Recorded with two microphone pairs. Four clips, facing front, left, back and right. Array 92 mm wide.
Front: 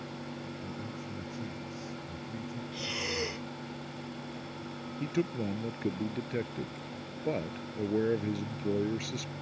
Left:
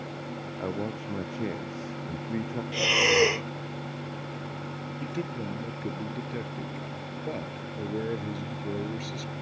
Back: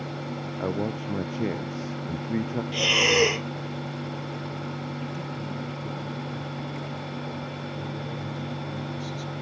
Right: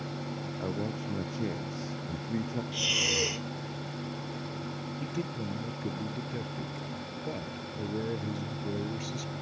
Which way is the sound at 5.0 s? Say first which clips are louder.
Left 3 dB, front 2 dB; 20° left.